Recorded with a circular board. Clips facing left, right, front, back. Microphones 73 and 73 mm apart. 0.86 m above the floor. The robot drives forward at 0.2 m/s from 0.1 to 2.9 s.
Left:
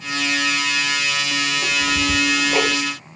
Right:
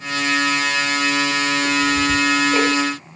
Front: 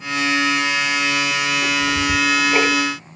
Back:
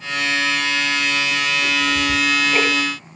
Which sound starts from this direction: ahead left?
Ticking, at 1.6 s.